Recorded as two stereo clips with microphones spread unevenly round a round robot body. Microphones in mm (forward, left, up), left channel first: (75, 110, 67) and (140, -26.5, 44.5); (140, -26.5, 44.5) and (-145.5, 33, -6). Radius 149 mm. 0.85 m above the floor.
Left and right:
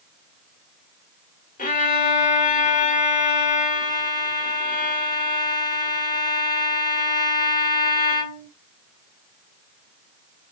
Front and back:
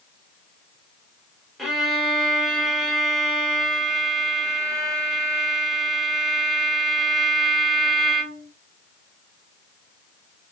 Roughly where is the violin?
Left.